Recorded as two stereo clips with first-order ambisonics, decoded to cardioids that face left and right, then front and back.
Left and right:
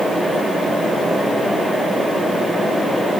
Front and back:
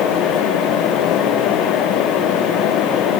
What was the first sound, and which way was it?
Only background noise.